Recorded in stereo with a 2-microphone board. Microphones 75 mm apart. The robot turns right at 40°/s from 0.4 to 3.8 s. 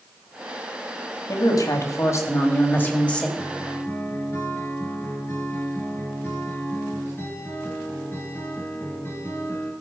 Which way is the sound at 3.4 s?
15° left (ahead or behind).